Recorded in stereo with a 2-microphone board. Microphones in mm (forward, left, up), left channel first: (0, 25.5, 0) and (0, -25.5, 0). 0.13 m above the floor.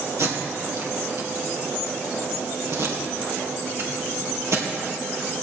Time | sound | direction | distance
0.2 | tape being pulled | 65° right (ahead or behind) | 2.5 m